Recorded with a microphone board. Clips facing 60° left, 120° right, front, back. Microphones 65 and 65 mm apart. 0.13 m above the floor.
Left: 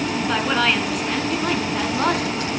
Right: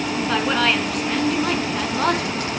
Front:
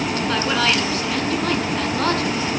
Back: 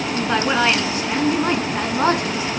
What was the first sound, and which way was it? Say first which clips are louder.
A woman speaking: right 1 dB, back 4 dB; 145° left.